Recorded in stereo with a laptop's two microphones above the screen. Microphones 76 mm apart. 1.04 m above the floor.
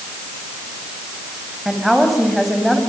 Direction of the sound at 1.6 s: Centre (ahead or behind).